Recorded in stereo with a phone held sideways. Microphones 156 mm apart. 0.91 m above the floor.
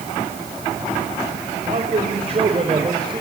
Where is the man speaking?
50° right (ahead or behind), 3.5 m; by 3.2 s 30° right (ahead or behind), 3.5 m.